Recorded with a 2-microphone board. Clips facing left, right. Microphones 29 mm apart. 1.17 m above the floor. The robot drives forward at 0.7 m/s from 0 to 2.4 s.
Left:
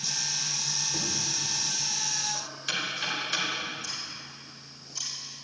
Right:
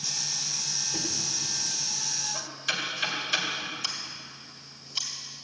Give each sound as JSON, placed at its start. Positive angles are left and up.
{"t": 0.9, "sound": "knocking", "side_deg": -5, "distance_m": 3.0}
{"t": 3.8, "sound": "scissors", "side_deg": -65, "distance_m": 2.5}